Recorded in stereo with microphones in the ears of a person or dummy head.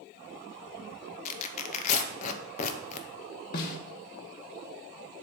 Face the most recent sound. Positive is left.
turn(degrees=50)  # may be behind; listen again after turning